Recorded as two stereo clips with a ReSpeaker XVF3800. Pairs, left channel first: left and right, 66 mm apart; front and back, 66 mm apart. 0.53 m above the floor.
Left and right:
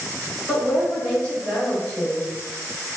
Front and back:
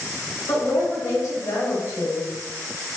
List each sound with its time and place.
0.5 s a woman speaking: 10° left, 1.9 m; by 2.2 s 5° right, 1.1 m